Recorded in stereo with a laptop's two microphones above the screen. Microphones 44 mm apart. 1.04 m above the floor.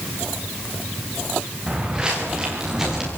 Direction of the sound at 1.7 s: 20° right (ahead or behind).